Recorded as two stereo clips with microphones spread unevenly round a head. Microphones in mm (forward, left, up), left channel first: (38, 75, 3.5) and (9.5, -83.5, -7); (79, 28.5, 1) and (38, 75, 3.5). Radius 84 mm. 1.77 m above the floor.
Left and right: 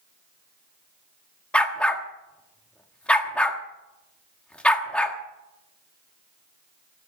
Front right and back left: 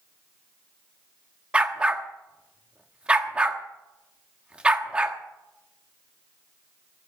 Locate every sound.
1.5 s a dog barking: 135° left, 1.3 m